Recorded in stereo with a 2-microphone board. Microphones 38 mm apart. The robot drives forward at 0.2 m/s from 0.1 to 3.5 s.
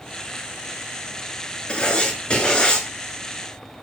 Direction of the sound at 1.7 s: 25° left (ahead or behind).